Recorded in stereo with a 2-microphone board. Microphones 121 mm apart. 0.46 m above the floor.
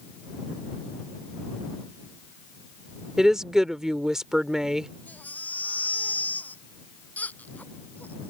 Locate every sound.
3.2 s a woman speaking: 5° right (ahead or behind)
5.1 s a baby crying: 15° left (ahead or behind)